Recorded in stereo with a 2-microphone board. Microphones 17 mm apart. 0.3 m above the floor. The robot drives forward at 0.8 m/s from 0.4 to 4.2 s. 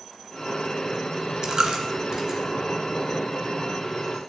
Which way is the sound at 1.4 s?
45° right (ahead or behind).